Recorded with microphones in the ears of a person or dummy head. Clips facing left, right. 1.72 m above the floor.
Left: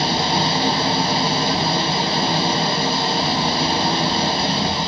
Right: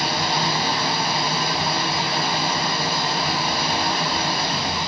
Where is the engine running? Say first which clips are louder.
Left 4 dB; 25° left (ahead or behind), 1.1 m.